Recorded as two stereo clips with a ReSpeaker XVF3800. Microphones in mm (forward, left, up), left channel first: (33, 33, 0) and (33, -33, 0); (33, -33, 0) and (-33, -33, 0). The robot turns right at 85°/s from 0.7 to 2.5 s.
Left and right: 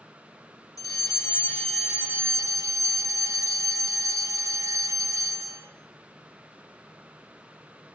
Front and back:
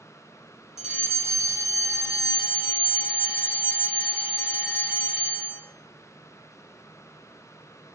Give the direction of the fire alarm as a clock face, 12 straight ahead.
9 o'clock.